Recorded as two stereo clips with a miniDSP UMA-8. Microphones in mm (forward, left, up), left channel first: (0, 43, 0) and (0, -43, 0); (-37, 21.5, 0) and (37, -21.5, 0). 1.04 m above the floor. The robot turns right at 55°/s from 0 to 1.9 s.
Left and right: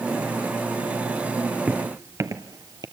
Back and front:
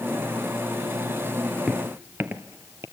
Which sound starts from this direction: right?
Footsteps, at 1.7 s.